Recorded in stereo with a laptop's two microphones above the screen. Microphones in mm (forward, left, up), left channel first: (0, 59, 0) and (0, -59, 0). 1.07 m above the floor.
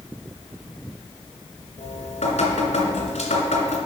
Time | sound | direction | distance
1.8 | dripping | 75° left (ahead or behind) | 2.0 m